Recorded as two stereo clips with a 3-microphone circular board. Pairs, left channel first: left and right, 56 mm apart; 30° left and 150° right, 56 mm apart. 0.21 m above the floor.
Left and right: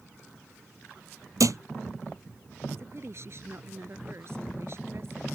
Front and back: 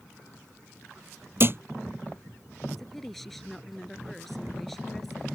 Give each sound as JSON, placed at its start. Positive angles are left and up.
{"t": 1.4, "sound": "a thud", "azimuth_deg": -105}
{"t": 2.8, "sound": "a woman speaking", "azimuth_deg": -55}